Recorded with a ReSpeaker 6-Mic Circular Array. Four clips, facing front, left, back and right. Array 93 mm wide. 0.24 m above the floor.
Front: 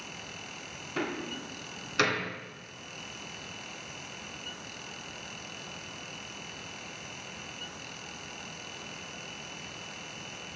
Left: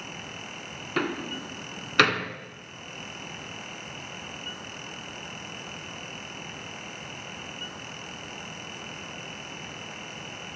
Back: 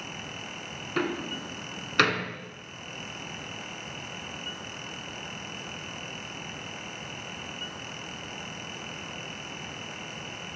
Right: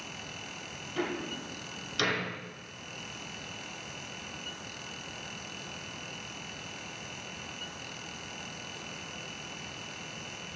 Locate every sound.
1.0 s a door slam: 115° left, 1.6 m